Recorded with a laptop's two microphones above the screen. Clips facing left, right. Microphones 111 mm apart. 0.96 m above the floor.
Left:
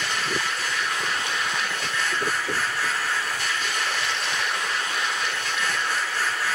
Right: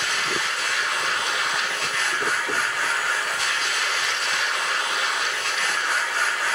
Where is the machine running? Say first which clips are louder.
Even; 80° right, 4 m.